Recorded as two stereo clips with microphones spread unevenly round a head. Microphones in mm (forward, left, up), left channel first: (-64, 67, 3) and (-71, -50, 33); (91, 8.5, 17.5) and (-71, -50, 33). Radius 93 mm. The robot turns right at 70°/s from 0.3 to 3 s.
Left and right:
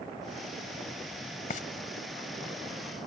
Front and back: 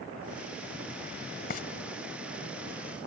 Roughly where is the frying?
Ahead left.